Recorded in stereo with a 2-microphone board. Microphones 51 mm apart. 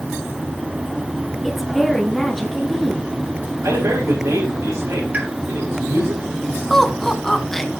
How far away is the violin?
I don't hear a violin.